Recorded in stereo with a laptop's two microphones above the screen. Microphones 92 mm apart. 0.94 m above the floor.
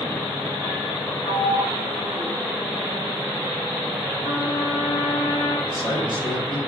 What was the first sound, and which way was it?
A sliding door, 70° left (ahead or behind).